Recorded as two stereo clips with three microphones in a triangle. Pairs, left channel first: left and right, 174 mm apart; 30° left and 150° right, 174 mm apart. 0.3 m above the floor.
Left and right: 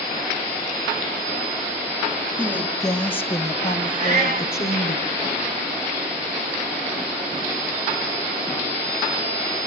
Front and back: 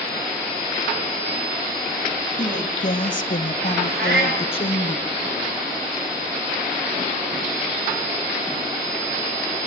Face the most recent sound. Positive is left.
turn(degrees=-135)